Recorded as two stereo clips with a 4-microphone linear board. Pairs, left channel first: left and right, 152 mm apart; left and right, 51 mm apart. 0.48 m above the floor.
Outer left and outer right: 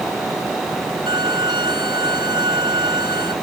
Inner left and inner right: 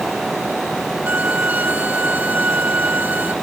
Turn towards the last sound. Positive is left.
turn(degrees=-30)  # may be behind; listen again after turning